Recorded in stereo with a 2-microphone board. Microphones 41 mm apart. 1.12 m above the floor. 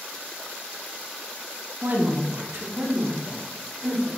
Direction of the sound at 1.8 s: 80° right.